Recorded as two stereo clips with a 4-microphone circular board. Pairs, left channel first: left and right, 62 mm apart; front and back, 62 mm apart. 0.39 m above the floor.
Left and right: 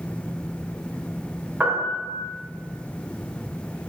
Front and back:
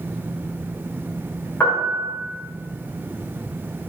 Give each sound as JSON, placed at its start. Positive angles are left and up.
{"t": 1.6, "sound": "a piano", "azimuth_deg": -45, "distance_m": 1.0}